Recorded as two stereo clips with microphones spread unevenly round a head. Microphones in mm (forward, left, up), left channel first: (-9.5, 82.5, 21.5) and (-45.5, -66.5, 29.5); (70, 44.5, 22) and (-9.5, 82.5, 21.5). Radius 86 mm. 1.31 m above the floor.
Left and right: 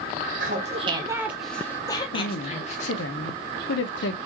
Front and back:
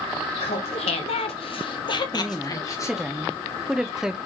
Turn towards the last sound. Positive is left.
turn(degrees=70)